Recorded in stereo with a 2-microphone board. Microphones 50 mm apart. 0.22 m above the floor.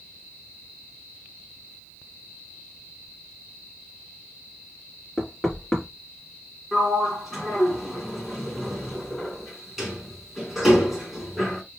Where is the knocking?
15° left (ahead or behind), 2.5 m.